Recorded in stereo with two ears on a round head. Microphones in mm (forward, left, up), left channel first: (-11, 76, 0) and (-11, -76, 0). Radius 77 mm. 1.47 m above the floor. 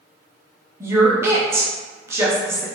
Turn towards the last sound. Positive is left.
turn(degrees=-15)  # may be behind; listen again after turning